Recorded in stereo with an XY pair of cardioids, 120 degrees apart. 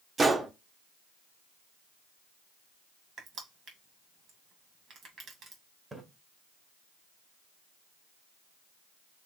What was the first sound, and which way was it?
A gunshot, 25° right.